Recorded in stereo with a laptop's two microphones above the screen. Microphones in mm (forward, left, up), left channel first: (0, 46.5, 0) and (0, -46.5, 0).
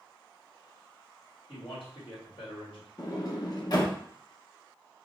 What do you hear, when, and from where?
1.5 s a man speaking: 60° left (ahead or behind), 1.8 m
3.0 s a sliding door: 45° left (ahead or behind), 0.7 m